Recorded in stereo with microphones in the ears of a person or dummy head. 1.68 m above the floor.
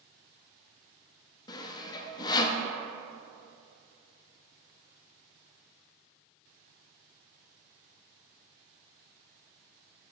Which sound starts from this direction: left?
Sawing, at 1.5 s.